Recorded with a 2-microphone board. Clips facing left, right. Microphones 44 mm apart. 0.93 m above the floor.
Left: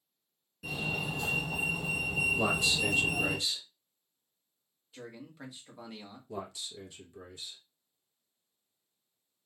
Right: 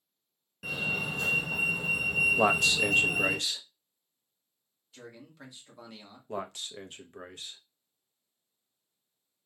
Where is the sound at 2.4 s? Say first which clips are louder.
Right 5 dB; 65° right (ahead or behind), 0.7 m.